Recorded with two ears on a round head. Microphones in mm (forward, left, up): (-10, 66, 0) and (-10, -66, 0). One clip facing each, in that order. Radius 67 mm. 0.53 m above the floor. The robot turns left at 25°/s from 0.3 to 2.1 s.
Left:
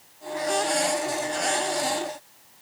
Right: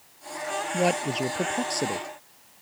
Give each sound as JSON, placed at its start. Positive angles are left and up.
{"t": 0.7, "sound": "a man speaking", "azimuth_deg": -80}